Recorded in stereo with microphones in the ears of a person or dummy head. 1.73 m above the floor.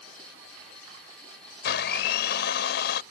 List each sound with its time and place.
1.6 s a blender: 65° left (ahead or behind)